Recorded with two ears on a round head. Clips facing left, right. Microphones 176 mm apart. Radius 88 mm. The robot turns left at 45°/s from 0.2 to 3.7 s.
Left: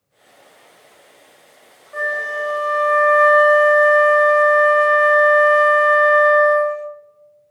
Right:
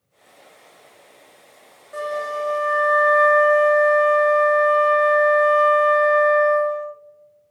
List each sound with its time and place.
1.9 s a flute: 160° right, 0.5 m; by 6.9 s 120° left, 0.5 m